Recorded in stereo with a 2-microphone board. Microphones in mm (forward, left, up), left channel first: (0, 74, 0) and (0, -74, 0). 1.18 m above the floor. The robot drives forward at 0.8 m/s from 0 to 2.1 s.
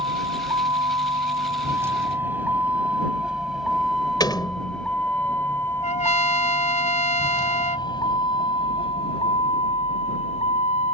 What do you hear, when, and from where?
0.0 s a vehicle: 35° right (ahead or behind); by 11.0 s 50° left (ahead or behind)
4.2 s a door slam: 30° left (ahead or behind)
5.8 s a trumpet: 55° left (ahead or behind)